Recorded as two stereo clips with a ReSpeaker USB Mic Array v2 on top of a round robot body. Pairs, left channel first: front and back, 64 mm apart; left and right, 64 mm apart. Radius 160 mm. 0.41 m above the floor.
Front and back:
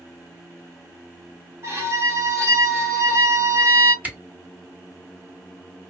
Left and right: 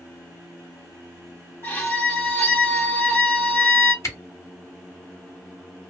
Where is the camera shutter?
115° left, 1.7 m.